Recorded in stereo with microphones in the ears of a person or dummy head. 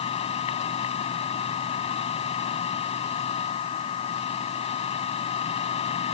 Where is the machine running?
40° left (ahead or behind).